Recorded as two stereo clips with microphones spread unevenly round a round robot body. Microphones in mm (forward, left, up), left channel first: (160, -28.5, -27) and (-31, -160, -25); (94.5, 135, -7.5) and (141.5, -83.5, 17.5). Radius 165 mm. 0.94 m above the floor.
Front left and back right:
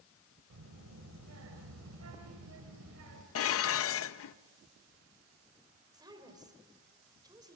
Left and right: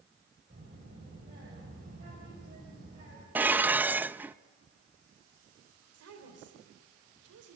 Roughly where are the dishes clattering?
Ahead.